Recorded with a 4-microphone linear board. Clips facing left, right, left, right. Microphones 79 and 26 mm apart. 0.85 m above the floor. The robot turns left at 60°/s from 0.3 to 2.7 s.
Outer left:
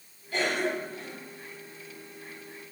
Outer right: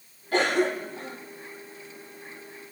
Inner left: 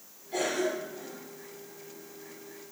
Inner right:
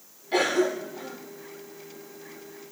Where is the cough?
75° right (ahead or behind), 2.0 m; by 1.2 s 50° right (ahead or behind), 2.0 m.